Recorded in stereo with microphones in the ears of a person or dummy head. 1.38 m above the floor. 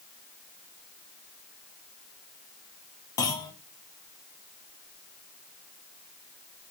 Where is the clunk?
20° left (ahead or behind), 0.6 m.